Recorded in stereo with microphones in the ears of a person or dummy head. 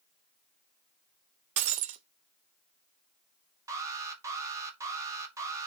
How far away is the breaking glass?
About 0.6 m.